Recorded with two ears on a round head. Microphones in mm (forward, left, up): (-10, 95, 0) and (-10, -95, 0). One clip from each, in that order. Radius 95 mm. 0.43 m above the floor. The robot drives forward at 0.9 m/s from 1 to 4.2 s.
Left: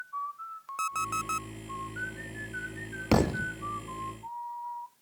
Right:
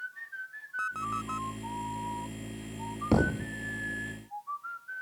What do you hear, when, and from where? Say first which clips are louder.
0.8 s an alarm clock: left 2 dB; 65° left (ahead or behind)
3.1 s a thud: left 2 dB; 60° left (ahead or behind); by 3.5 s 65° left (ahead or behind)